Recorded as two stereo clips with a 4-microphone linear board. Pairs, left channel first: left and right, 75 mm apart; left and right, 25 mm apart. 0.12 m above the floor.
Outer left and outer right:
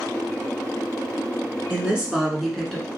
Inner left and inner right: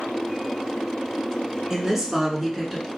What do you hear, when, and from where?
1.7 s a woman speaking: 20° right (ahead or behind), 1.2 m; by 2.9 s 10° left (ahead or behind), 1.2 m